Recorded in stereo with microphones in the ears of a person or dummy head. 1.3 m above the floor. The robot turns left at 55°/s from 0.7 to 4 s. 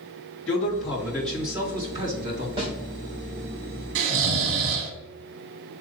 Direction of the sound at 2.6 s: 30° right (ahead or behind).